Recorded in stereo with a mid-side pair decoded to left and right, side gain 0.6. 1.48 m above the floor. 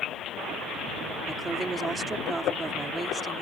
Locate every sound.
1.3 s a woman speaking: 25° right